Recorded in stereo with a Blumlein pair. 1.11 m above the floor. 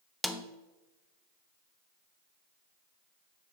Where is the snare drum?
Straight ahead, 0.8 m.